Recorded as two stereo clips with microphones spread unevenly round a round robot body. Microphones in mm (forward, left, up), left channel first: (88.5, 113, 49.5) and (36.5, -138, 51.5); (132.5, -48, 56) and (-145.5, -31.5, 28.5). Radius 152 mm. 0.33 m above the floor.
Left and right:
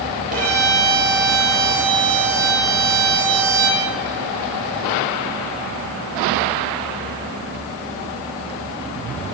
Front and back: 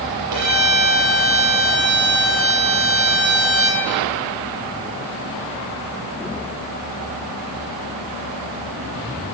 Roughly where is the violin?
Behind.